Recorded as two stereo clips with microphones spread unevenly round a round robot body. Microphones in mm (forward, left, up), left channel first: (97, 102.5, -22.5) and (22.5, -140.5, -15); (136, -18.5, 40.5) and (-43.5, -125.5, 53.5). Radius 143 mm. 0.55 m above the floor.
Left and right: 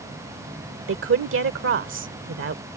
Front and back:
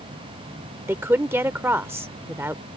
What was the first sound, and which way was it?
A woman speaking, 70° right.